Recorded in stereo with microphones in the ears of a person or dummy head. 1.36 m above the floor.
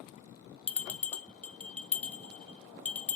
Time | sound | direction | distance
0.7 | a bell | 5° left (ahead or behind) | 0.9 m